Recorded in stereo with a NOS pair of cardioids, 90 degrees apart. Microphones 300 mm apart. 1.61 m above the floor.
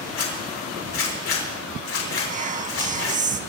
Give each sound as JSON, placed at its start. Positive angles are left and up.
{"t": 0.1, "sound": "a zipper", "azimuth_deg": 50, "distance_m": 6.0}
{"t": 2.3, "sound": "whispering", "azimuth_deg": -25, "distance_m": 1.8}